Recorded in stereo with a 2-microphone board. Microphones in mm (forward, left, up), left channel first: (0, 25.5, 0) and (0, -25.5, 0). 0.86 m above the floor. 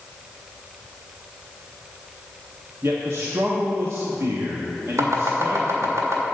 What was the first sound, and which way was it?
A man speaking, 65° right (ahead or behind).